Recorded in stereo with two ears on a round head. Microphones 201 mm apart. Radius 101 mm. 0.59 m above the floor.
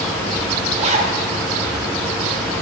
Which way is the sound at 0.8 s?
30° right (ahead or behind).